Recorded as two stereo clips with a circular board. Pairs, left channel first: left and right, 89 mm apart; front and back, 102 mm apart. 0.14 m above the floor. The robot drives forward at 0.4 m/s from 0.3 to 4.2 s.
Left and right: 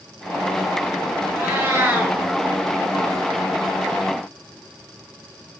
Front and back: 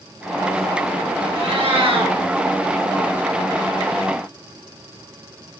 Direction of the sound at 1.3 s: 160° right.